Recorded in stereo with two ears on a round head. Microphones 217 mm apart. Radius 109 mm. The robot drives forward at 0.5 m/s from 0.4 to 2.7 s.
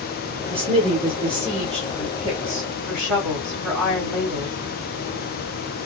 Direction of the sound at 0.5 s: 25° right (ahead or behind).